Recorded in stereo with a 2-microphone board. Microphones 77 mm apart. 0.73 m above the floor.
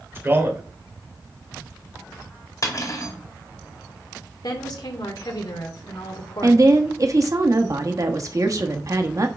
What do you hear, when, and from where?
0.1 s a man speaking: 30° right (ahead or behind), 2.5 m
2.6 s cutlery clinking: 50° left (ahead or behind), 2.0 m
4.4 s a woman speaking: 65° left (ahead or behind), 2 m
6.4 s a woman speaking: 45° right (ahead or behind), 1.1 m